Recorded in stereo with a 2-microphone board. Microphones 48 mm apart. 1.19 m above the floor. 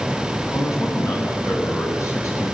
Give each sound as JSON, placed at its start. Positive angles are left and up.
{"t": 0.5, "sound": "a man speaking", "side_deg": 70, "distance_m": 8.0}